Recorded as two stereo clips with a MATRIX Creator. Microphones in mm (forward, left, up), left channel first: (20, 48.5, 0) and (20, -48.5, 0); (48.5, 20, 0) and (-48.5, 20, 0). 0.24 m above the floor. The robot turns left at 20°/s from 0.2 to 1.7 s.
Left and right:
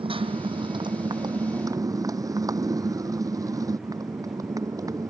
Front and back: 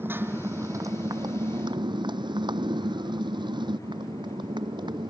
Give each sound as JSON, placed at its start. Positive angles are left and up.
{"t": 0.0, "sound": "a motorcycle", "azimuth_deg": -115}